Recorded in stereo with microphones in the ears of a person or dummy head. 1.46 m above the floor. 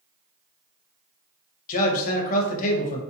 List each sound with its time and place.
1.7 s a man speaking: 45° left (ahead or behind), 0.6 m